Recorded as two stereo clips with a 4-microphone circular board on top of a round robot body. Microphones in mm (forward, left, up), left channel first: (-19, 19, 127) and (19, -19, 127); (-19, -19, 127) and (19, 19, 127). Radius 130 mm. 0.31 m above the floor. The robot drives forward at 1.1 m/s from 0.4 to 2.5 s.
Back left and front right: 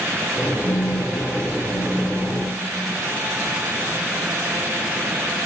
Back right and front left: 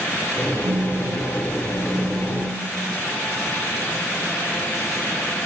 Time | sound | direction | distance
0.6 | a phone buzzing | 80° left | 0.5 m